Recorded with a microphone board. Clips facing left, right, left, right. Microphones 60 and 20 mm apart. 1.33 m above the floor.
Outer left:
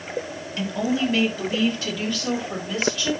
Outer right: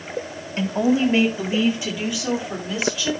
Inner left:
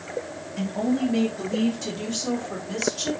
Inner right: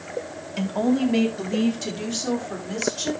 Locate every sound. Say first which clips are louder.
0.6 s a woman speaking: outer right 5 dB, inner right 3 dB; 35° right (ahead or behind), 3.5 m; by 3.1 s centre (ahead or behind), 5.5 m